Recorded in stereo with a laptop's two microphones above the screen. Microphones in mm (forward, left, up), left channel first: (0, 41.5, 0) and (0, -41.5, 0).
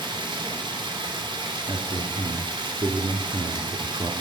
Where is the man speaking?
55° right (ahead or behind), 2 m.